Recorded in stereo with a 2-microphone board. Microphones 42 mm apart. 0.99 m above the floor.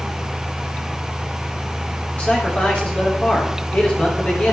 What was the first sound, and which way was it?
A man speaking, 35° left (ahead or behind).